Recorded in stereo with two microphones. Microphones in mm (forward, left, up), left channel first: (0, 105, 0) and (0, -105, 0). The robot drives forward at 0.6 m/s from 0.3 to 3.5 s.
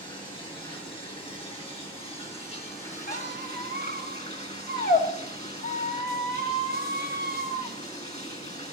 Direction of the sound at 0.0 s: 20° left (ahead or behind).